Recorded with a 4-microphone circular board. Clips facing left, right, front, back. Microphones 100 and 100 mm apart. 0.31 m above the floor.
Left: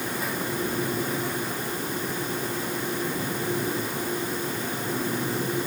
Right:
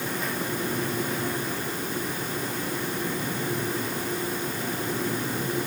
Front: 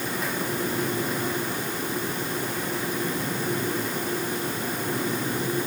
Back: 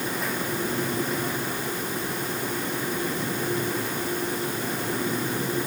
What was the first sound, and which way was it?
Only background noise.